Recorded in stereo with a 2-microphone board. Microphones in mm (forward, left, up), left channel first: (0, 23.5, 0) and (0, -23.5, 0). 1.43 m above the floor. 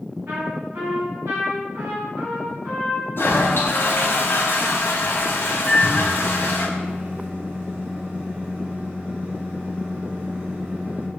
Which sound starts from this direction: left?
A toilet flushing, at 3.2 s.